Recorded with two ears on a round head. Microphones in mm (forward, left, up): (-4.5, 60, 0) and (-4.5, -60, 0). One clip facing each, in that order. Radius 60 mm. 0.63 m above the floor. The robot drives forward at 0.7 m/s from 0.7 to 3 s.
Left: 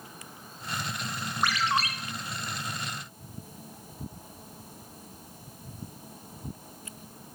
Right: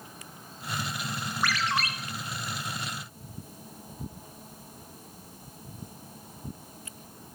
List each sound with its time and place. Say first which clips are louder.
1.4 s a ringtone: left 2 dB; 20° left (ahead or behind), 1.2 m; by 1.9 s 25° left (ahead or behind), 0.9 m